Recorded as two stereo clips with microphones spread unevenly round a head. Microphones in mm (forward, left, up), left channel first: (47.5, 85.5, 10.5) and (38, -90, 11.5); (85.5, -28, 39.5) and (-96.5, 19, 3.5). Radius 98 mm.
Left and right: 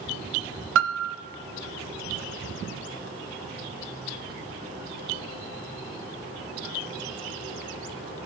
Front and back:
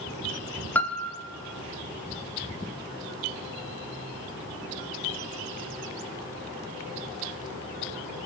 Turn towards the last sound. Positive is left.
turn(degrees=-95)